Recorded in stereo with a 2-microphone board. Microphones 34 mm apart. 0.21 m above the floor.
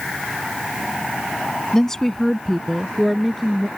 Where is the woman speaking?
20° left (ahead or behind); by 3.7 s 5° left (ahead or behind).